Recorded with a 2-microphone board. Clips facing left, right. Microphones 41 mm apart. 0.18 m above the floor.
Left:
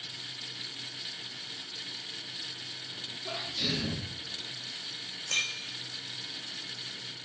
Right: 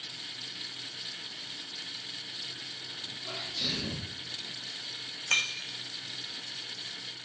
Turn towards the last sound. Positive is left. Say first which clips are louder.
# right 3 dB
turn(degrees=-45)  # may be behind; listen again after turning